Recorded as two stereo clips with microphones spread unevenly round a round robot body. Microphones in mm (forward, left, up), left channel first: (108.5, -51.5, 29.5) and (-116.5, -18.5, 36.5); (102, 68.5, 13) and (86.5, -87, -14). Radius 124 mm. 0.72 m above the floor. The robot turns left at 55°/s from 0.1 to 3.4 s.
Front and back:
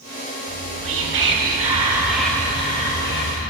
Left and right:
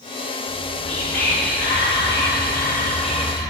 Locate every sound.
0.5 s whispering: 175° left, 1.4 m; by 3.5 s 15° left, 1.4 m